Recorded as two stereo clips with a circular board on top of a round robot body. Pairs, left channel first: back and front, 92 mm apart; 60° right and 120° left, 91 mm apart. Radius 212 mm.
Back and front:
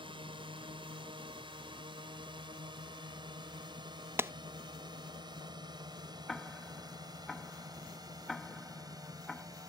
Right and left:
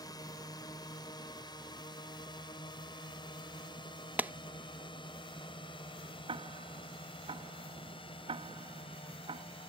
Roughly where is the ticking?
Left.